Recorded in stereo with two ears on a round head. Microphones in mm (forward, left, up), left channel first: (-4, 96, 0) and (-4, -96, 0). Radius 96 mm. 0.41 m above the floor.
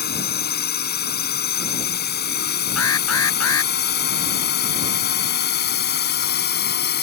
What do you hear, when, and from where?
0.0 s a drone: 45° left (ahead or behind); by 7.0 s 50° left (ahead or behind)
2.8 s an alarm: 70° left (ahead or behind)